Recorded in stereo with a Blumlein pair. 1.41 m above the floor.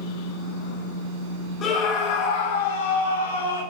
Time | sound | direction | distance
1.6 | a scream | 30° left | 3 m